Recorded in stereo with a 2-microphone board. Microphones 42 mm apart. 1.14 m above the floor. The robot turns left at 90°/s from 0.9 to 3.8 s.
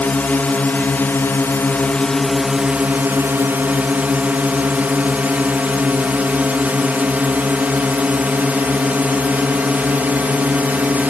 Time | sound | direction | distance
0.0 | a drone | 130° left | ?